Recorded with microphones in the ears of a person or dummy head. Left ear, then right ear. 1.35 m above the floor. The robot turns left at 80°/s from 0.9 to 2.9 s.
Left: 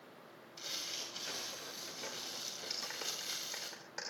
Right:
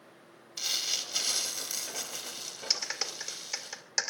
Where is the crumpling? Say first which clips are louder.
Right 10 dB; 45° right, 3 m; by 3.7 s 155° left, 3 m.